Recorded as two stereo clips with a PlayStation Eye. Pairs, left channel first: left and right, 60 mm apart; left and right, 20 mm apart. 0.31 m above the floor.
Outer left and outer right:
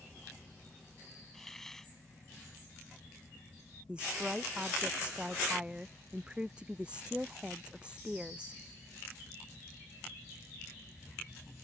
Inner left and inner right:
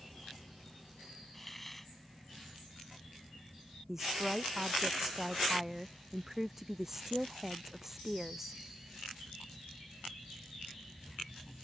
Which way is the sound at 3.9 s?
15° right (ahead or behind).